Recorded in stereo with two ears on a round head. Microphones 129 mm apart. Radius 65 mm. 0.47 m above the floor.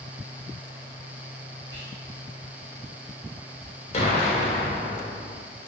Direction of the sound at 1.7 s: 15° left (ahead or behind).